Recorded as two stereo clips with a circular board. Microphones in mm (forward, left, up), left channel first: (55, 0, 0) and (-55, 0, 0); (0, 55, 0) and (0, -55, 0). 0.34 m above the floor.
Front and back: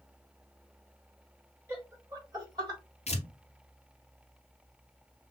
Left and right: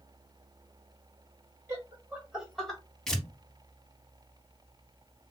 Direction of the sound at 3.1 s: 5° left.